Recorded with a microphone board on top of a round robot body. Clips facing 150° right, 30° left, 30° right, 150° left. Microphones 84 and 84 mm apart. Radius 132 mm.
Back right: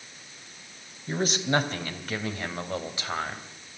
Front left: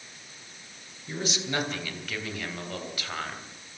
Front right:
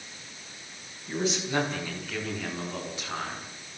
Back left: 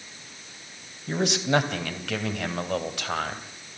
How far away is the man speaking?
About 3.5 m.